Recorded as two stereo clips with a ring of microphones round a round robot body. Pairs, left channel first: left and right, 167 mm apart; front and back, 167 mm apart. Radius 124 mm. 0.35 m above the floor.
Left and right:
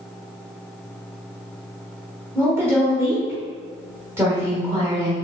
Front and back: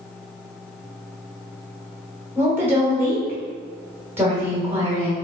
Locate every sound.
2.4 s a woman speaking: 130° right, 1.3 m